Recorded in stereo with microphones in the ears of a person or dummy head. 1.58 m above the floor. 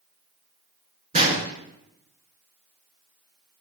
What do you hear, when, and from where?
1.1 s a gunshot: 35° right (ahead or behind), 3 m